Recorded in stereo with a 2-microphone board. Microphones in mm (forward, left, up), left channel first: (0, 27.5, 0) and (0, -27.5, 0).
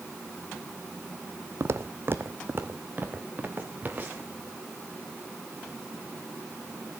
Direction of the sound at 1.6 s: 55° right (ahead or behind).